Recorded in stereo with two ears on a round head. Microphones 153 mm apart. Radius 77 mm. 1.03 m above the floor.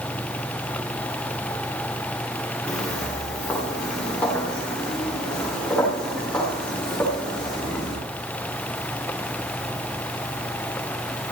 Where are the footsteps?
10° left (ahead or behind), 6.5 m; by 8.0 s 5° left (ahead or behind), 10.5 m.